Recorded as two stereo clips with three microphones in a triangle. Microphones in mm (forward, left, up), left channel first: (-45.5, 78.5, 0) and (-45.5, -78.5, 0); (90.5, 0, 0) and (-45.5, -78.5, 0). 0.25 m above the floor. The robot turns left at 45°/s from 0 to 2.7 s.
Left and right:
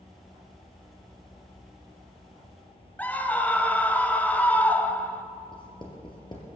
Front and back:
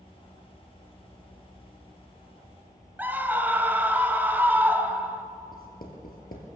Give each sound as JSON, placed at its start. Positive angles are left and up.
{"t": 3.0, "sound": "a scream", "azimuth_deg": 155, "distance_m": 1.0}
{"t": 5.5, "sound": "writing", "azimuth_deg": 35, "distance_m": 3.0}